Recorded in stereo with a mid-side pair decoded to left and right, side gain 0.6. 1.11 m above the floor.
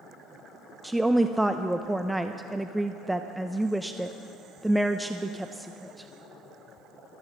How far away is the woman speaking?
About 0.6 m.